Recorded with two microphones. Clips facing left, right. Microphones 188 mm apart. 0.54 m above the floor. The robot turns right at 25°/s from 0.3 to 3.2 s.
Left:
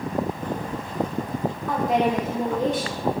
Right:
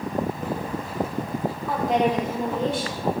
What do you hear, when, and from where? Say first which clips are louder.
1.7 s a woman speaking: even; straight ahead, 1.1 m; by 3.1 s 35° left, 1.1 m